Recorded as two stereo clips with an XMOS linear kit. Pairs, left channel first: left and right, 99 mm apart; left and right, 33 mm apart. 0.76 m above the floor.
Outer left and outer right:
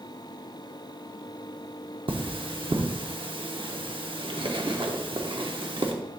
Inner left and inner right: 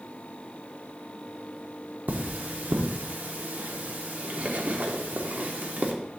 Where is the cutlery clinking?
60° right (ahead or behind), 0.8 m.